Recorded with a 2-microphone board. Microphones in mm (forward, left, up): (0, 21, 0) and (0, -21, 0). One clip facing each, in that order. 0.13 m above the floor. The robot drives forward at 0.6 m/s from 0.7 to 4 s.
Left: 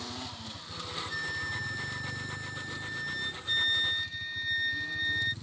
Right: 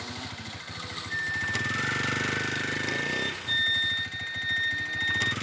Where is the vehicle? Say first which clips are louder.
Right 3 dB; 70° right (ahead or behind); by 5.4 s 65° right (ahead or behind).